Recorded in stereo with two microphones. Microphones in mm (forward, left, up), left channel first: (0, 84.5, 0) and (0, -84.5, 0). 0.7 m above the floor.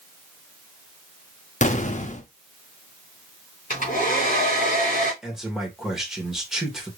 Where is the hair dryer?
50° left (ahead or behind), 3 m.